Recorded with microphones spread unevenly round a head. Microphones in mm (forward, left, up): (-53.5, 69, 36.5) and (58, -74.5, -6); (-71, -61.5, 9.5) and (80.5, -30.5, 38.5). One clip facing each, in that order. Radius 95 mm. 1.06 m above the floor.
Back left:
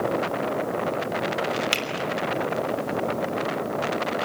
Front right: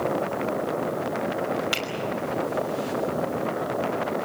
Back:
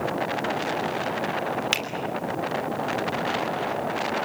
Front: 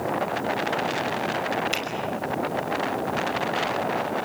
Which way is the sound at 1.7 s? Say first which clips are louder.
Back left 1 dB, front 1 dB; 170° right.